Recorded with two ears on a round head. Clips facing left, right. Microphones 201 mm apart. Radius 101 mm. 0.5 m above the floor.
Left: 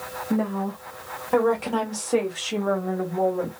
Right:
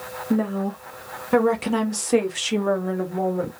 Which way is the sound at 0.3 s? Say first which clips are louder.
Right 2 dB; 25° right (ahead or behind).